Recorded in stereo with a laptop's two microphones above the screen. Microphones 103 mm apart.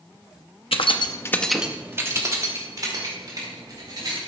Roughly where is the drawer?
No drawer in this recording.